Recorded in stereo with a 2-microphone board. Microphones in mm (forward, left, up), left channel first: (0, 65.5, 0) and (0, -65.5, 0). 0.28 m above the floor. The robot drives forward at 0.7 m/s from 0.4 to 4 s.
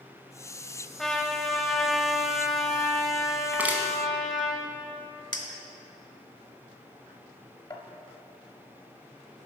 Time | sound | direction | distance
1.0 | a trumpet | 5° left (ahead or behind) | 0.8 m
3.5 | crushing | 15° right (ahead or behind) | 1.0 m
5.3 | a clink | 35° left (ahead or behind) | 0.9 m